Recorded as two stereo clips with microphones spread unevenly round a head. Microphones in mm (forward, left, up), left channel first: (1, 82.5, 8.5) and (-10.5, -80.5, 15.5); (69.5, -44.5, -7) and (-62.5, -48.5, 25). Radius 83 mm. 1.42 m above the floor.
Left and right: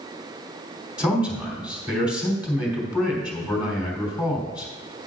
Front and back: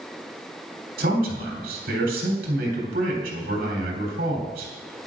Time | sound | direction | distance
1.0 | a man speaking | straight behind | 3.5 m